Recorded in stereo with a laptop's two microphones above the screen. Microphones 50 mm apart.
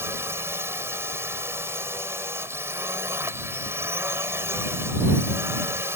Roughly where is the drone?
Right.